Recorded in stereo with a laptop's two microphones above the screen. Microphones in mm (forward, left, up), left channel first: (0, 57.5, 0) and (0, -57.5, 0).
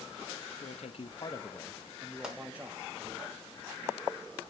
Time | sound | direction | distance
0.6 | a man speaking | 75° left (ahead or behind) | 1.0 m
2.2 | a pop | 5° right (ahead or behind) | 2.5 m